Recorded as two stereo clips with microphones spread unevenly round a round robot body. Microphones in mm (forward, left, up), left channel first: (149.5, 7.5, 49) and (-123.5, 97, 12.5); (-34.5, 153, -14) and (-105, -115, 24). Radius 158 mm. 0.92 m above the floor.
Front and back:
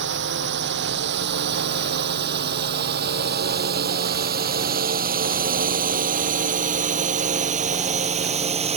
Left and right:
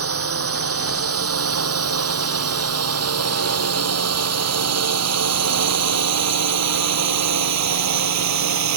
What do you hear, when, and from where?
0.0 s a drone: 140° right; by 8.8 s 125° right